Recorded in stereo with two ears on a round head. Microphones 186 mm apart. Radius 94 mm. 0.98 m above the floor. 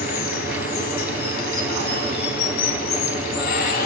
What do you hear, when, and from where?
0.0 s running water: 45° left (ahead or behind), 1.9 m